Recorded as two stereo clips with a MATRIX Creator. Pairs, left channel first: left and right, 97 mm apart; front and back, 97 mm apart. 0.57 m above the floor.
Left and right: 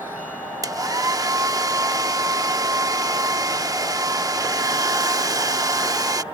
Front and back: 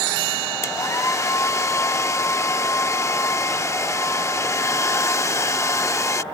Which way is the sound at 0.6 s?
50° right.